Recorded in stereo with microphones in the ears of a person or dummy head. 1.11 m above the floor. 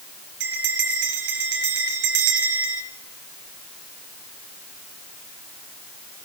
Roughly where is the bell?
Right.